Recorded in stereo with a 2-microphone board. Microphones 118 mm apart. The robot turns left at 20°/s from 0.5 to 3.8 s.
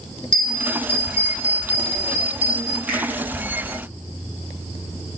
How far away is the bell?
About 1.5 m.